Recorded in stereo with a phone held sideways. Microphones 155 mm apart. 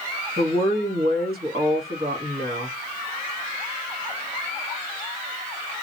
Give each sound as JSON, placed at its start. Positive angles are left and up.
{"t": 0.4, "sound": "a woman speaking", "side_deg": -85, "distance_m": 1.6}